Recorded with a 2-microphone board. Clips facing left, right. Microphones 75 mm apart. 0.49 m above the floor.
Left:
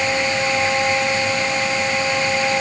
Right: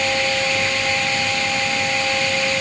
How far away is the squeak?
I don't hear a squeak.